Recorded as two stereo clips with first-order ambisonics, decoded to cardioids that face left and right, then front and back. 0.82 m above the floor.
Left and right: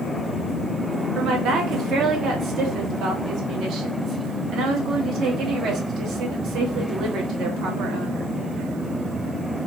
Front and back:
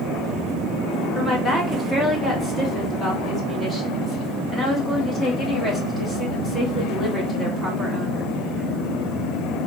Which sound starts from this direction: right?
A woman speaking, at 1.1 s.